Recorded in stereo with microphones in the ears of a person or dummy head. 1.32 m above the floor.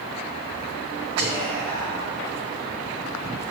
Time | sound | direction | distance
1.2 | whispering | 60° right (ahead or behind) | 1.9 m